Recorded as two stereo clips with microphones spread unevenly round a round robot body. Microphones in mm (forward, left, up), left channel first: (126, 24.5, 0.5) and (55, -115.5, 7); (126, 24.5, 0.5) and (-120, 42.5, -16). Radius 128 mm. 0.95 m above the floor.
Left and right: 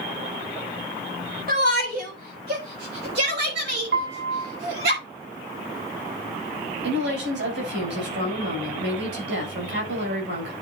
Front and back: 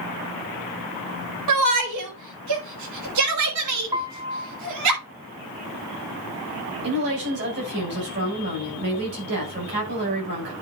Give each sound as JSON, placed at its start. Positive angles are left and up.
{"t": 1.5, "sound": "a shout", "azimuth_deg": -175, "distance_m": 3.0}
{"t": 3.9, "sound": "a piano", "azimuth_deg": -105, "distance_m": 1.5}
{"t": 6.8, "sound": "a woman speaking", "azimuth_deg": -135, "distance_m": 5.5}